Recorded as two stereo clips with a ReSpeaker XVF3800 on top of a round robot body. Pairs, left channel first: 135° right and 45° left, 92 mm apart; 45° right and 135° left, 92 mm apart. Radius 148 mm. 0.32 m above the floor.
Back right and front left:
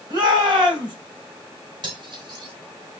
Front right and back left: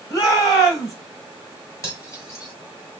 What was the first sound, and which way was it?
A shout, 5° left.